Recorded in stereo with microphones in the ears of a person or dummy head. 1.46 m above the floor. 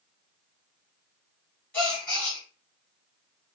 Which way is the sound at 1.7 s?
5° left (ahead or behind).